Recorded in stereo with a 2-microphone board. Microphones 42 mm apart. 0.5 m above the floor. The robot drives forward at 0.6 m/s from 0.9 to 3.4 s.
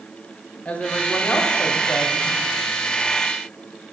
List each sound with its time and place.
0.7 s a woman speaking: 30° left (ahead or behind), 0.9 m